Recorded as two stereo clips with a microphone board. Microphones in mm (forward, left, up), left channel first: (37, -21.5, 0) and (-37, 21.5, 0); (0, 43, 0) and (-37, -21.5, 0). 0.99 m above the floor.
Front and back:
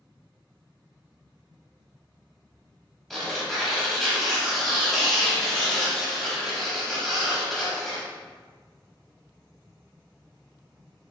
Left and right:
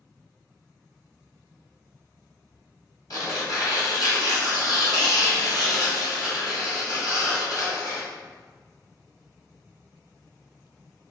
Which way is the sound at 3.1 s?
55° left.